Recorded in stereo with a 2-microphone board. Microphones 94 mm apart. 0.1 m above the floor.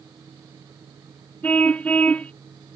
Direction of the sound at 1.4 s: 15° left (ahead or behind).